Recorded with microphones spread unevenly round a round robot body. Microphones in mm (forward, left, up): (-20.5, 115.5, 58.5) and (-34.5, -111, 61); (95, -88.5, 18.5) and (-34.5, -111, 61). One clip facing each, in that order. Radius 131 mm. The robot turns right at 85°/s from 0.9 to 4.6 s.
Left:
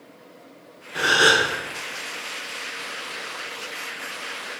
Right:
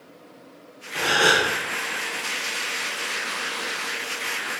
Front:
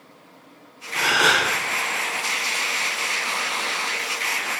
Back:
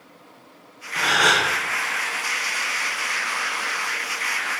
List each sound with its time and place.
0.9 s a gasp: 25° left, 1.4 m; by 1.5 s 70° left, 1.4 m